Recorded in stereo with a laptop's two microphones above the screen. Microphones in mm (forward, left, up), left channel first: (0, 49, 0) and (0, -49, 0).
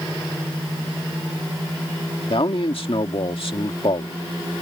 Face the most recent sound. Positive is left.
turn(degrees=65)  # may be behind; listen again after turning